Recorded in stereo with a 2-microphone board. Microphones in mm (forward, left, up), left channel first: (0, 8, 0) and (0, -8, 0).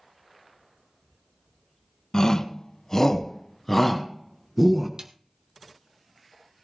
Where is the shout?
45° left (ahead or behind), 1.4 m; by 4.9 s 20° right (ahead or behind), 1.6 m.